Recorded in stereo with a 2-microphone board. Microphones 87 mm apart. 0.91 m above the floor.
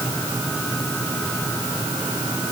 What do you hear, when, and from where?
Only background noise.